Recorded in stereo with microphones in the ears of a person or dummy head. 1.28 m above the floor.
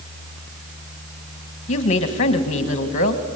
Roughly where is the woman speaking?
Left.